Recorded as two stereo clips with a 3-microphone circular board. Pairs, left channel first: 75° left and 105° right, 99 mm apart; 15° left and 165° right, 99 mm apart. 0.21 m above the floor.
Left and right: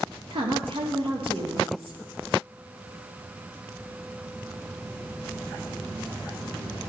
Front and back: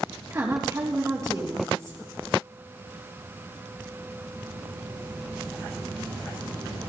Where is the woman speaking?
110° right, 4 m.